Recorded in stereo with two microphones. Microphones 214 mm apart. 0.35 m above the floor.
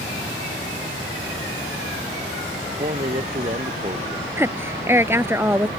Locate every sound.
2.8 s a man speaking: 40° right (ahead or behind); by 4.3 s 25° right (ahead or behind)
4.4 s a woman speaking: 10° right (ahead or behind)